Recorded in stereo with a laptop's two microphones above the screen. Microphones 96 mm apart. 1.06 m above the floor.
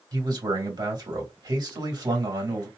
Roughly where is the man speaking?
Right.